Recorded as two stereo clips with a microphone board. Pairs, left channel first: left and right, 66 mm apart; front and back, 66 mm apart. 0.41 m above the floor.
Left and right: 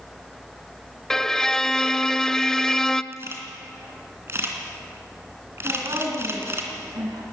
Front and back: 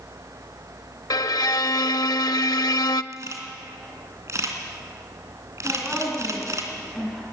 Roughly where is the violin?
Ahead.